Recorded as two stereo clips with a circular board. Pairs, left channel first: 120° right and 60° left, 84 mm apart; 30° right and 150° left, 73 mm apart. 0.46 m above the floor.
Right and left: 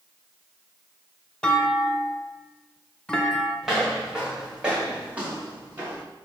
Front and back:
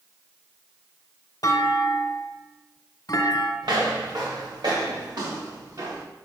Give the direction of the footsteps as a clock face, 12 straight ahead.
7 o'clock.